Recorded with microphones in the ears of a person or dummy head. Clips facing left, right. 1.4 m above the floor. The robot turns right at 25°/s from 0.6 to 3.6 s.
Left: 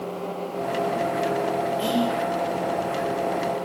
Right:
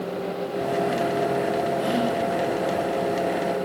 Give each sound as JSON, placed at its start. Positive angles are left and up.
{"t": 1.8, "sound": "whispering", "side_deg": 45, "distance_m": 2.5}